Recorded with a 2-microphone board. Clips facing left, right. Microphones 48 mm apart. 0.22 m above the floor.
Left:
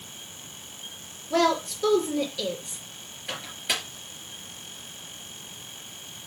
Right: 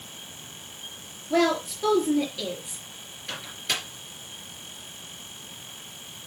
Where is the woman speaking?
10° right (ahead or behind), 4 m.